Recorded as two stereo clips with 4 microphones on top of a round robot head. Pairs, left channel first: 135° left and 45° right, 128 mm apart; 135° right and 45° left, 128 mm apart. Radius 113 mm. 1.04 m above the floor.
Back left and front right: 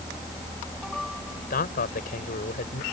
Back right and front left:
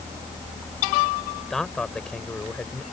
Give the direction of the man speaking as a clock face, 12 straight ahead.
7 o'clock.